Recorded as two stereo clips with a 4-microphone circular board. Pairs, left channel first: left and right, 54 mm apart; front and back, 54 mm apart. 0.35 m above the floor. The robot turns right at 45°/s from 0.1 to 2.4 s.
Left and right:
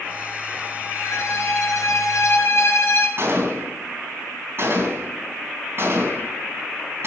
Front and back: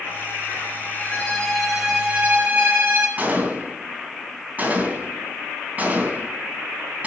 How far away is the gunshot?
About 3 m.